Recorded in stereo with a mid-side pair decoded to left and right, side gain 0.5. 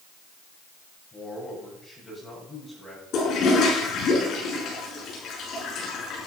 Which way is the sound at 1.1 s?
20° left.